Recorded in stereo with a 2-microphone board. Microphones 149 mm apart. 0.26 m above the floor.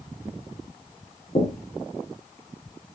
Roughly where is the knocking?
Left.